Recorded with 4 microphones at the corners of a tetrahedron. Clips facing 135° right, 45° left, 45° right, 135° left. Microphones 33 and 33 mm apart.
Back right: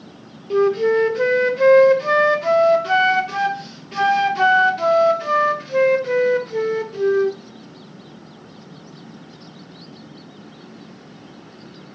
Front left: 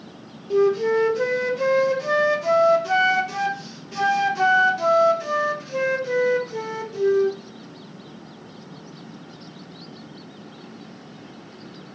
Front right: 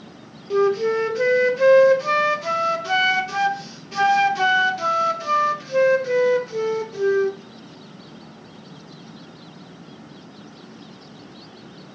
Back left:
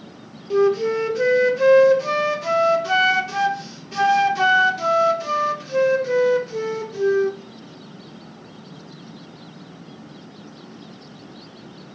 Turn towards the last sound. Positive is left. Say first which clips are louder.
# back right 2 dB, back left 1 dB
turn(degrees=-130)